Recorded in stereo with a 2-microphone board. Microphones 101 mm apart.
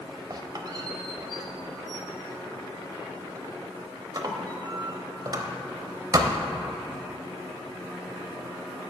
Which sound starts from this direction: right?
A squeak, at 0.3 s.